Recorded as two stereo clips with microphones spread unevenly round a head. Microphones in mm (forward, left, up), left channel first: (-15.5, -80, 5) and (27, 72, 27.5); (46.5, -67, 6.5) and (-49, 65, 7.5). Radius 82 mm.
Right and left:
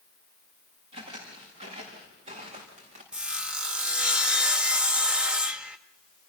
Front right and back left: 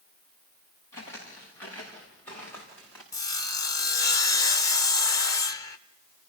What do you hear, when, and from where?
0.9 s footsteps: 20° left, 6.5 m; by 3.0 s 30° left, 5.5 m
3.1 s sawing: 5° left, 0.6 m